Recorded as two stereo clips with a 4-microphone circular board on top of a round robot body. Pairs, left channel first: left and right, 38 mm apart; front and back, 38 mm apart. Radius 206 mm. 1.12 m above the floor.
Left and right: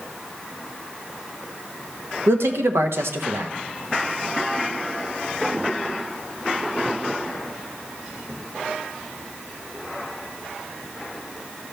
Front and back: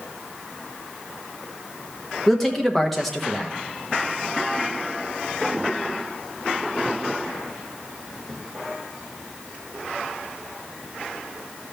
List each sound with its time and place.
2.3 s a man speaking: 90° right, 1.2 m